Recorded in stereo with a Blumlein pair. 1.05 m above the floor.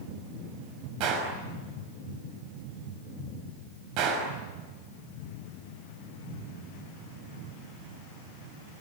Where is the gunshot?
40° right, 5.5 m.